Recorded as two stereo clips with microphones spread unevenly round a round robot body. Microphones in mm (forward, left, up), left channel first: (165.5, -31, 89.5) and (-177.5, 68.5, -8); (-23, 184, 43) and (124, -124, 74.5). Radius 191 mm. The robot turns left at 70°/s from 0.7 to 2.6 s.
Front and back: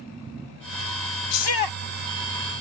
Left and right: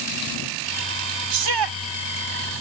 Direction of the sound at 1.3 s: 40° right.